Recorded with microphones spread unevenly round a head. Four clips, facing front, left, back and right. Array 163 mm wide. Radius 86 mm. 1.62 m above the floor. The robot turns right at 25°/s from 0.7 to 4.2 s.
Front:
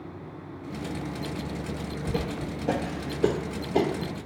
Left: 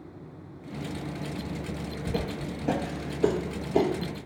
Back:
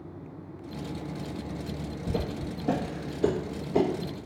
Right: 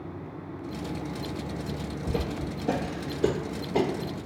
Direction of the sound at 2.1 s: 105° left.